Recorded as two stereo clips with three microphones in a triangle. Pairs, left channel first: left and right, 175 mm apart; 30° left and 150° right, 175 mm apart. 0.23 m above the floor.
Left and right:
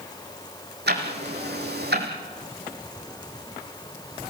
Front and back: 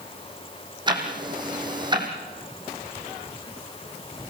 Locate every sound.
0.9 s ticking: 85° right, 3.5 m